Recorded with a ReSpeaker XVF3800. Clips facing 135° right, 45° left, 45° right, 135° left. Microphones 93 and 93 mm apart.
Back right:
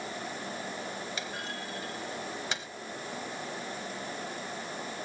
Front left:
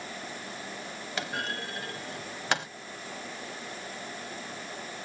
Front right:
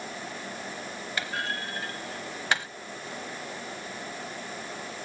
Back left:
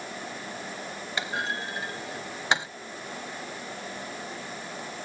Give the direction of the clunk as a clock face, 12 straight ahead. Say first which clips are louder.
Front left 4 dB, back left 2 dB; 10 o'clock.